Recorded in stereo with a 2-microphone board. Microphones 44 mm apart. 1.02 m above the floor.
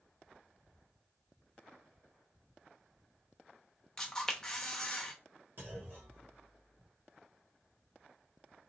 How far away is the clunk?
About 1.5 m.